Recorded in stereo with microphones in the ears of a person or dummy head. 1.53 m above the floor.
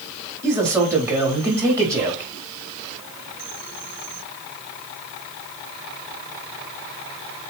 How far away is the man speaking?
About 4 m.